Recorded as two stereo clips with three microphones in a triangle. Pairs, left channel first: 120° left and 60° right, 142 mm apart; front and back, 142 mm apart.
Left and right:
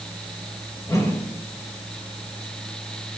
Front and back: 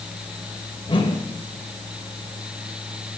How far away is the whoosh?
About 2.5 m.